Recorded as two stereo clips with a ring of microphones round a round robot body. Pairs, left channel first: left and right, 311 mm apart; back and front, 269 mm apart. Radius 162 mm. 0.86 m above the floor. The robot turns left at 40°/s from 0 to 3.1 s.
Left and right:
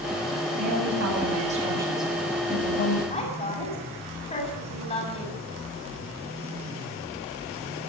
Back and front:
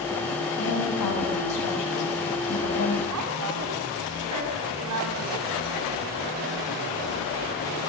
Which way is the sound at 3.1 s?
20° left.